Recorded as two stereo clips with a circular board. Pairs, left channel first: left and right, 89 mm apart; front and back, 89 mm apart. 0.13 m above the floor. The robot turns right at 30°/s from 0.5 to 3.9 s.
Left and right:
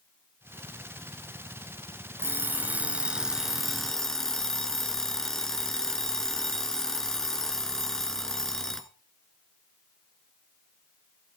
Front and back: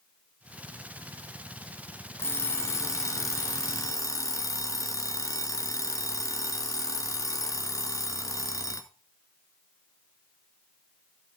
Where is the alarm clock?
45° right, 0.9 m; by 8.9 s 5° left, 0.9 m.